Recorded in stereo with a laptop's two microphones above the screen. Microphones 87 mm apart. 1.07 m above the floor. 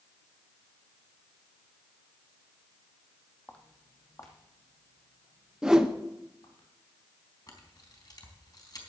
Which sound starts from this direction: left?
A camera shutter, at 7.5 s.